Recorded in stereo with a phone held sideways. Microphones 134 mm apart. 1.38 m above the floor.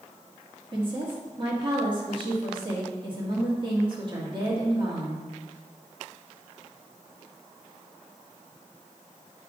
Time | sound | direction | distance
0.7 | a woman speaking | 40° right (ahead or behind) | 2 m